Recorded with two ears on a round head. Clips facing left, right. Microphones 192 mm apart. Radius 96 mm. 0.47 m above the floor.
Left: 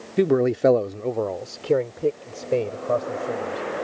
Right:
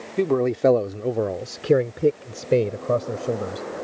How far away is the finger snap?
No finger snap in this recording.